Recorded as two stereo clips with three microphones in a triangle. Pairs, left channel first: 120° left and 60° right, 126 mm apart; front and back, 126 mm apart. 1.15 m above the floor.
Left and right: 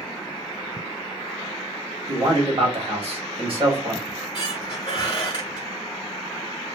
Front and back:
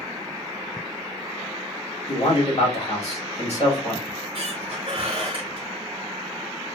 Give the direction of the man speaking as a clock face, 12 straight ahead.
1 o'clock.